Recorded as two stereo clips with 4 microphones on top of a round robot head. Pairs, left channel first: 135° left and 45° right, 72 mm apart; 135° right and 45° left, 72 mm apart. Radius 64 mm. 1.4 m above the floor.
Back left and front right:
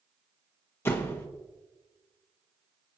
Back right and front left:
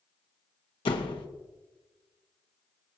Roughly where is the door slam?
Behind.